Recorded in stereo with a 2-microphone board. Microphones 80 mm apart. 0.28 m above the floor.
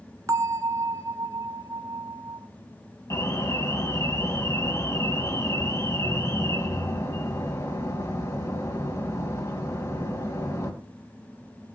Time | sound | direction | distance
0.3 | a bell | 40° right (ahead or behind) | 0.6 m
3.1 | an alarm | 40° left (ahead or behind) | 3.5 m